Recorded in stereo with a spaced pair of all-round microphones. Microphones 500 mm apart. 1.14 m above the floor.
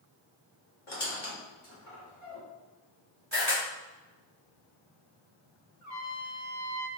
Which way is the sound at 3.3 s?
25° right (ahead or behind).